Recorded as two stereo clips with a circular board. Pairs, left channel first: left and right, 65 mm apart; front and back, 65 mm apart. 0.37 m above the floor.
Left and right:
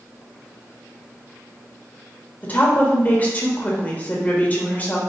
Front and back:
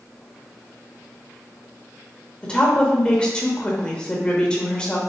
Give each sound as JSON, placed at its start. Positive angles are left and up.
{"t": 2.4, "sound": "a woman speaking", "azimuth_deg": 55, "distance_m": 0.9}